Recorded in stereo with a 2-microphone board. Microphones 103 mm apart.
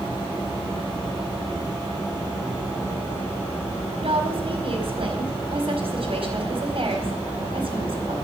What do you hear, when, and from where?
4.0 s a woman speaking: 65° right (ahead or behind), 4.5 m